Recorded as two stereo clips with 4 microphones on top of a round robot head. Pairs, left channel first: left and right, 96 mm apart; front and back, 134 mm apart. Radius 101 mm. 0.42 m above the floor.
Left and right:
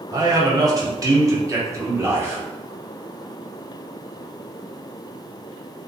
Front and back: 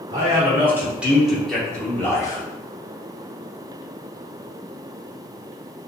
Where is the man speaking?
125° right, 1.5 m; by 2.4 s 40° right, 1.1 m.